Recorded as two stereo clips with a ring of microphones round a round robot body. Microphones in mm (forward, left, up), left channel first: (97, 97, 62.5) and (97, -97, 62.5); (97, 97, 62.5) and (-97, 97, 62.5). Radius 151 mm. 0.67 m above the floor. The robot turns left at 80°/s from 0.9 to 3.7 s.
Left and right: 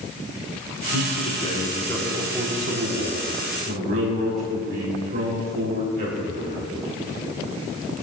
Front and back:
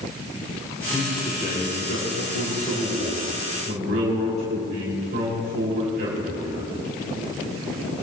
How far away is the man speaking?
About 4 m.